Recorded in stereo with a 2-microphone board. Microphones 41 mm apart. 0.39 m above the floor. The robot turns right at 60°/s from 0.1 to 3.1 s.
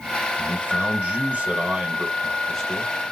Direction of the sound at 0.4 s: 125° right.